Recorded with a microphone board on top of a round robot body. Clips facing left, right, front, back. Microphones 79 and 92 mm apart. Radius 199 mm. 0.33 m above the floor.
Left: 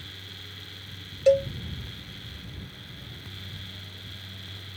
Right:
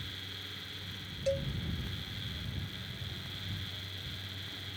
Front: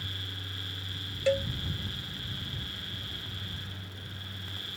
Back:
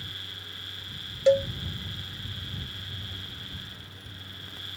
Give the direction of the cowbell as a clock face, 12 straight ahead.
8 o'clock.